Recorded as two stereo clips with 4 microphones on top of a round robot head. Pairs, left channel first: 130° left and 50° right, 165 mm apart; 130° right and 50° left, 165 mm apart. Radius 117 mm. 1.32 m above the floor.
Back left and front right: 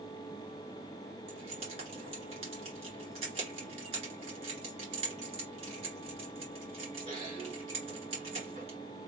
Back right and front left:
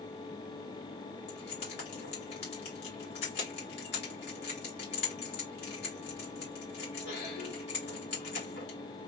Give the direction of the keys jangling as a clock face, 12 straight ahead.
4 o'clock.